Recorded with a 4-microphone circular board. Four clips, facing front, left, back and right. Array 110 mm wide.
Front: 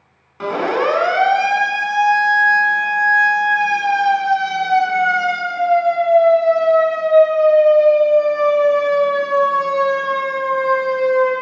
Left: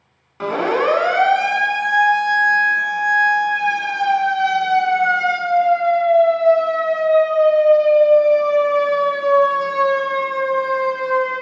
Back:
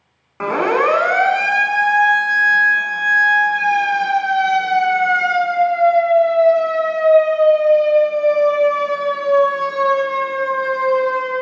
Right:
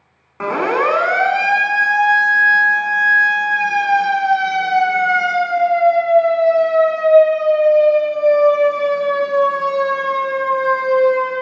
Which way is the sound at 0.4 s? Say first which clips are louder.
Right 1 dB, back 2 dB; 135° right.